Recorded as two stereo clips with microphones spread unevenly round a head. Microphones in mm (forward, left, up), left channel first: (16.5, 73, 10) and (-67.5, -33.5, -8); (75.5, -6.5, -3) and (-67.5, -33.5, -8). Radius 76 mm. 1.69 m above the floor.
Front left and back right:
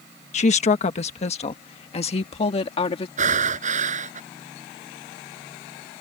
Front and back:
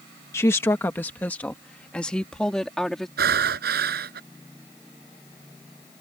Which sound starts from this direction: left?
A woman speaking, at 0.3 s.